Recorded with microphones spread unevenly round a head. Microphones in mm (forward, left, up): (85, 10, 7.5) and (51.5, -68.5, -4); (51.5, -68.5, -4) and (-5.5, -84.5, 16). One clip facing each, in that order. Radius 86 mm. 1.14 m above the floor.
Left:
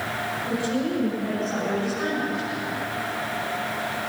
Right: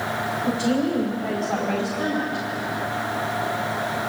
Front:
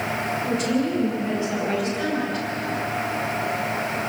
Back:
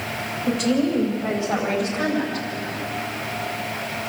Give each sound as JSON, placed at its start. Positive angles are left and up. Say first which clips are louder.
{"t": 0.5, "sound": "a woman speaking", "louder": "right 4 dB, back 4 dB", "azimuth_deg": -165, "distance_m": 5.0}